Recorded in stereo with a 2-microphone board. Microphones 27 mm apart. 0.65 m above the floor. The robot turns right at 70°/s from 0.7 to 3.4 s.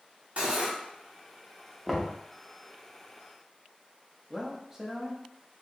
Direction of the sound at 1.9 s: 5° left (ahead or behind).